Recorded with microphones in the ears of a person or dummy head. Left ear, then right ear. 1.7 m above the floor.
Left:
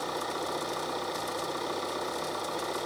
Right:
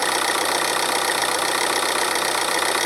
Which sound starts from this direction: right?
An engine running, at 0.0 s.